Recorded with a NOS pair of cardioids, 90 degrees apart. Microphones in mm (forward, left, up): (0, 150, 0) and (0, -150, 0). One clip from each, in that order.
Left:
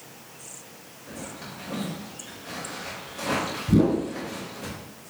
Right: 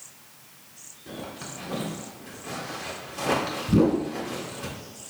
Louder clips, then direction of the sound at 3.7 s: Even; 20° left.